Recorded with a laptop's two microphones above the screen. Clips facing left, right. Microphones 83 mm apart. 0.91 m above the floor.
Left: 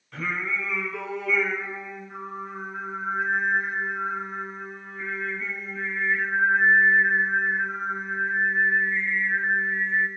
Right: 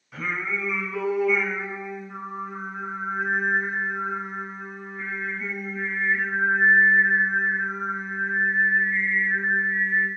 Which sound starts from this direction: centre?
Singing, at 0.1 s.